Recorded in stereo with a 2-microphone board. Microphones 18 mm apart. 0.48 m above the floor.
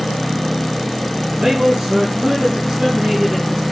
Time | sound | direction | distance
1.2 | a man speaking | 60° right (ahead or behind) | 6 m